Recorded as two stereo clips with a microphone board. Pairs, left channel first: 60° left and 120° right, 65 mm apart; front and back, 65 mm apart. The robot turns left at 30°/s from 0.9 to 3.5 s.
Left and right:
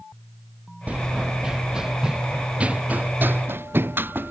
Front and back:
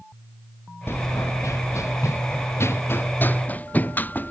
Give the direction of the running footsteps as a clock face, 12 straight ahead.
2 o'clock.